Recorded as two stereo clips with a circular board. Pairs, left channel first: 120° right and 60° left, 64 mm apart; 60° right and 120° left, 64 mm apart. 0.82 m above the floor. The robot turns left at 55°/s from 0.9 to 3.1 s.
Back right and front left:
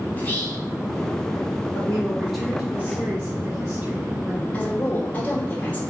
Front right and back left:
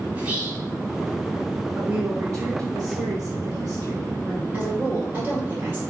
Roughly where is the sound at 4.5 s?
Behind.